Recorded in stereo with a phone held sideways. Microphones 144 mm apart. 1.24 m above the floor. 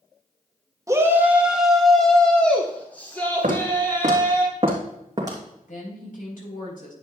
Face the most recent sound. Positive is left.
turn(degrees=75)  # may be behind; listen again after turning